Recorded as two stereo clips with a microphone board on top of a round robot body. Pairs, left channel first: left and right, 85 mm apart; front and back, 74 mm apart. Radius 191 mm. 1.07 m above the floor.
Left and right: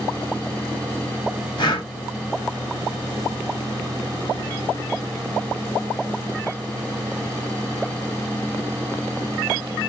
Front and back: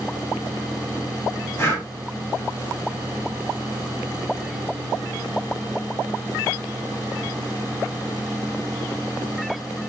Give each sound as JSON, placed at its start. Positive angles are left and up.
{"t": 1.6, "sound": "breathing", "azimuth_deg": 55, "distance_m": 1.5}